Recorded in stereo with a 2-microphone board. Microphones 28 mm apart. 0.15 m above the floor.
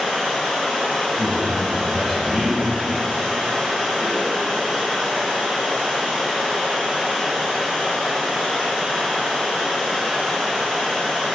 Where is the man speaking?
15° left (ahead or behind), 1.8 m.